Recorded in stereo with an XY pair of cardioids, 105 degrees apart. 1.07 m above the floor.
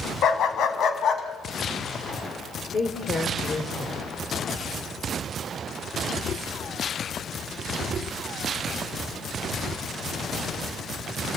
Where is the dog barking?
65° left, 3 m; by 3.7 s 50° left, 4.5 m.